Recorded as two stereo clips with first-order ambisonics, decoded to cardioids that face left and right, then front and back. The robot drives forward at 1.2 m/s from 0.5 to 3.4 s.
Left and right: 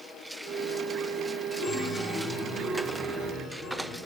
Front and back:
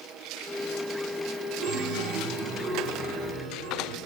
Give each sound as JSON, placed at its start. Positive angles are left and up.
{"t": 1.6, "sound": "a chime", "azimuth_deg": 140, "distance_m": 0.5}